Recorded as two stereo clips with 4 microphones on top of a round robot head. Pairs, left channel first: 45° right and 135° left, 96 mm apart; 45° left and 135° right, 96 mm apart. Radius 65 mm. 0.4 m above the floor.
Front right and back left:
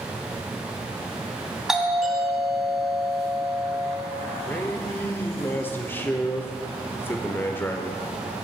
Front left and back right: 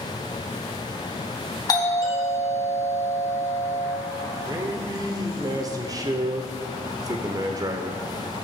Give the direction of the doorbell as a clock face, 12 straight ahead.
10 o'clock.